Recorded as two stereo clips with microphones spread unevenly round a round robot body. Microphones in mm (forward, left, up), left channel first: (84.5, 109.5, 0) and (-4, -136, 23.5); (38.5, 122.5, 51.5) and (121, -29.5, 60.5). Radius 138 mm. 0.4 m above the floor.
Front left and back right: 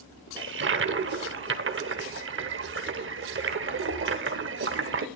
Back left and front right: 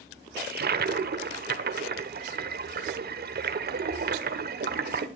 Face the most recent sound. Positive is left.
turn(degrees=-70)